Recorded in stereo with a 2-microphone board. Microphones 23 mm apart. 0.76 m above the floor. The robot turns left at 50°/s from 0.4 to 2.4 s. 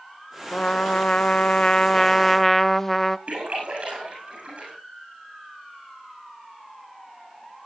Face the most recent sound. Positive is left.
turn(degrees=-55)  # may be behind; listen again after turning